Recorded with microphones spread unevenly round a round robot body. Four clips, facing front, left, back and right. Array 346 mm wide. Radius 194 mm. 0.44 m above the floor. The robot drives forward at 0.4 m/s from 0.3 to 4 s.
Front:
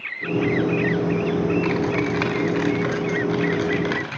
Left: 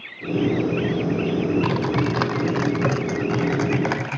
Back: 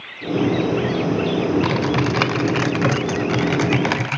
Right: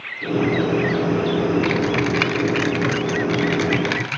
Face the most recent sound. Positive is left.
turn(degrees=160)